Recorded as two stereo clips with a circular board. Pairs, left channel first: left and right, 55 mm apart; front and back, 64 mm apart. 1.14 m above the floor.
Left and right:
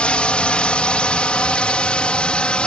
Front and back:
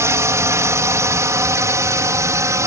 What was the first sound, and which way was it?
A drone, 155° left.